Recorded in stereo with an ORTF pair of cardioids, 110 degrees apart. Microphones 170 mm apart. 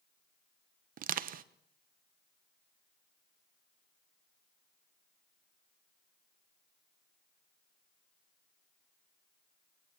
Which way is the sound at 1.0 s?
55° right.